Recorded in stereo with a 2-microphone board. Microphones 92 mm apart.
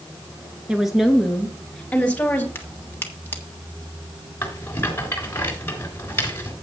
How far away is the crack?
About 1.6 m.